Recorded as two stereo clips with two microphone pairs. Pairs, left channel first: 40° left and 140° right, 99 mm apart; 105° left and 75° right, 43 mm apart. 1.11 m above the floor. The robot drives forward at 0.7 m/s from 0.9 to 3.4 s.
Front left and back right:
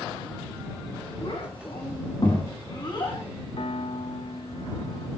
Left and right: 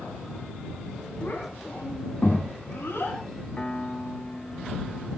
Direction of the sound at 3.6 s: 45° left.